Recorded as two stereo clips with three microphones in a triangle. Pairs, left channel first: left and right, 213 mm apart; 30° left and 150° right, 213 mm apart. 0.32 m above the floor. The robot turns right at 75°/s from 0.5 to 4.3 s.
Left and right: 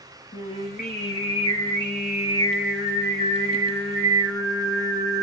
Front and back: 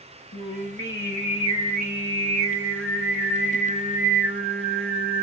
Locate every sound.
0.3 s singing: 25° left, 2 m; by 5.2 s 50° right, 2 m